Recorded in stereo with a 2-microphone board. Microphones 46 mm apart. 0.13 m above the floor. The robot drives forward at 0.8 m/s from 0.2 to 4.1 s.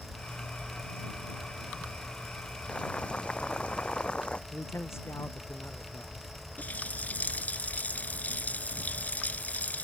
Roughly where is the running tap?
Left.